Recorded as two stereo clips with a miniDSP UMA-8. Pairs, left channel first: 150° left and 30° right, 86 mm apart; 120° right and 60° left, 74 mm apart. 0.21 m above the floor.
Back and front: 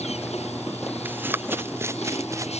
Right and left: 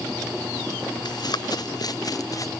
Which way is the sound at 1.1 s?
95° right.